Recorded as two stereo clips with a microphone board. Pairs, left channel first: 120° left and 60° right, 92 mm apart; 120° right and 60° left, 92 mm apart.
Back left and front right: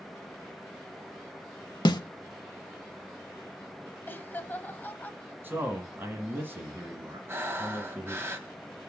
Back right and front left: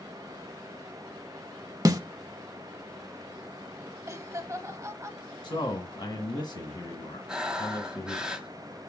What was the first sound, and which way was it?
A snare drum, 100° left.